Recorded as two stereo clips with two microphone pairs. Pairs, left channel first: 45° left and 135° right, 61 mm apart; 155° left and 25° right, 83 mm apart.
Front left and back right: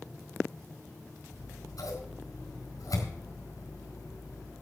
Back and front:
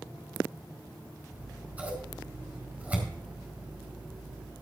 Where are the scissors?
45° left, 4.5 m.